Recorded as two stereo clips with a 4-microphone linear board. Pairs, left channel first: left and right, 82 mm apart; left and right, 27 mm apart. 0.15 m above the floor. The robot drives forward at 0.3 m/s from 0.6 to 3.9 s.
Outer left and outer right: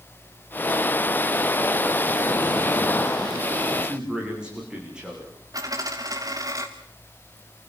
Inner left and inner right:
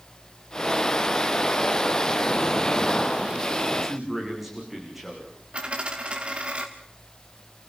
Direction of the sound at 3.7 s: 10° right (ahead or behind).